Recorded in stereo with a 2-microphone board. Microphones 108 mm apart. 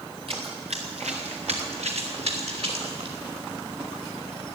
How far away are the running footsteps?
About 1.7 m.